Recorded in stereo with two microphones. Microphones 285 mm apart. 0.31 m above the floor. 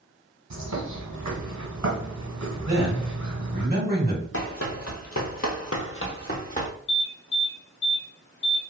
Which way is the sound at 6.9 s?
40° left (ahead or behind).